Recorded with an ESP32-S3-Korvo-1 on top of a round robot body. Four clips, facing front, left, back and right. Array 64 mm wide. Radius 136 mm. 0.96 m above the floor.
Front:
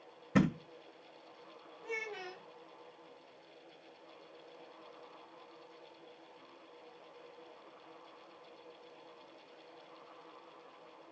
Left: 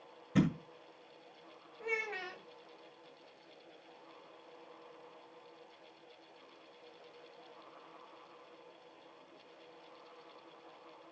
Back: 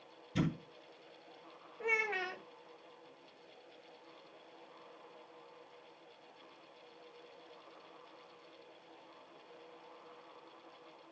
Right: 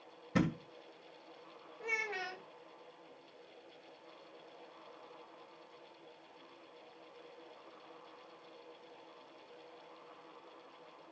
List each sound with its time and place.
0.3 s a thud: 10° right, 2.5 m
1.8 s a child speaking: straight behind, 1.6 m